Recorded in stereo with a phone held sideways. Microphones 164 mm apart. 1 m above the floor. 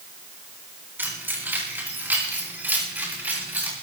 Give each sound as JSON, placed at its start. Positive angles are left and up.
{"t": 1.0, "sound": "keys jangling", "side_deg": -10, "distance_m": 6.5}